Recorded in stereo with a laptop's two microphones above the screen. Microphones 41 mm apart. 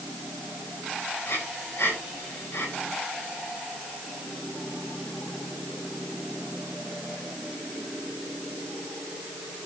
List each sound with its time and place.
1.2 s breathing: 70° left (ahead or behind), 8.5 m